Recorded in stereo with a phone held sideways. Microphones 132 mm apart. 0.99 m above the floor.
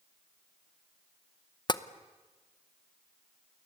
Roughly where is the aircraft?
I don't hear an aircraft.